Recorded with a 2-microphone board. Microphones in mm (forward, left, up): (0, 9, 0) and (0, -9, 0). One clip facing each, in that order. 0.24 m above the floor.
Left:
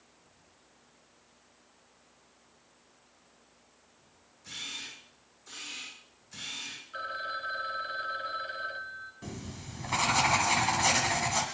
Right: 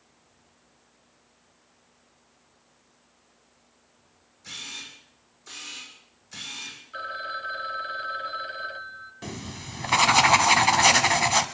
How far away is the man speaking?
I don't hear a man speaking.